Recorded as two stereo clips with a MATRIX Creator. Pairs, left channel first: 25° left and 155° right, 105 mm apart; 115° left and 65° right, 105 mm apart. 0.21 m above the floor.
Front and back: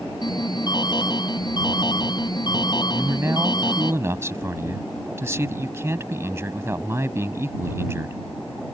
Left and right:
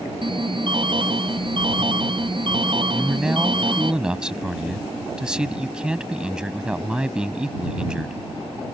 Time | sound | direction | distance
0.2 | an alarm | 25° right | ?
2.9 | a man speaking | 140° right | ?